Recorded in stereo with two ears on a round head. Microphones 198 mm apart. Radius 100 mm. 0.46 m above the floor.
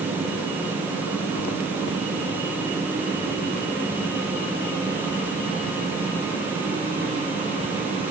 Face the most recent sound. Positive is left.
No sound to turn to.